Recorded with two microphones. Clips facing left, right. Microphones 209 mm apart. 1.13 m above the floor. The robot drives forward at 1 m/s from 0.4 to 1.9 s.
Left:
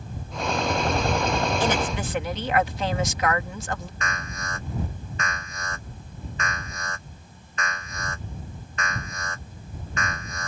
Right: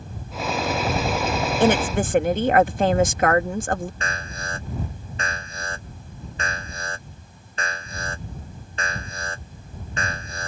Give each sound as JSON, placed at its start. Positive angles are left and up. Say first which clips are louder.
{"t": 1.6, "sound": "a woman speaking", "louder": "right 6 dB", "side_deg": -55}
{"t": 4.0, "sound": "an alarm", "louder": "right 2 dB", "side_deg": -30}